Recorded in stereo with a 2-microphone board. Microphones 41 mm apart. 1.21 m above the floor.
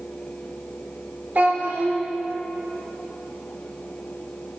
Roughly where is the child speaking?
Right.